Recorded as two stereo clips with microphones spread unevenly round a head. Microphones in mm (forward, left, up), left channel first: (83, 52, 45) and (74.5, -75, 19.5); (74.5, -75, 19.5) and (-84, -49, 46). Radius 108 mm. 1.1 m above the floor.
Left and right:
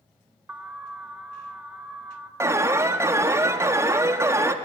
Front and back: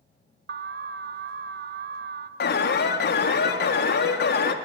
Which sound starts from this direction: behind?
An alarm, at 0.5 s.